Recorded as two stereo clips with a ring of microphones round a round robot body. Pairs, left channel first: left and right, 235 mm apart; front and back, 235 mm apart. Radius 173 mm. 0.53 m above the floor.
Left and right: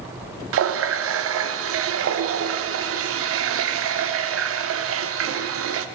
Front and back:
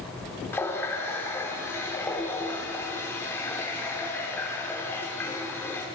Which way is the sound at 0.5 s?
80° right.